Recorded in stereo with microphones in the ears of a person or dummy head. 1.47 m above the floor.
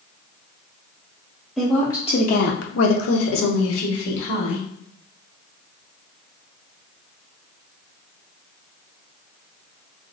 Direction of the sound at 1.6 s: 5° left (ahead or behind).